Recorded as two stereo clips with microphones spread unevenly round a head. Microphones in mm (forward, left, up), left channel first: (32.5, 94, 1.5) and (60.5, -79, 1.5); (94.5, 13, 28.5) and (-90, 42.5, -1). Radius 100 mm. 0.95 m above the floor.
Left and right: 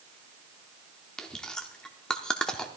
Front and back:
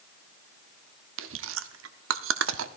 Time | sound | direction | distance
1.2 | chewing | 175° right | 0.6 m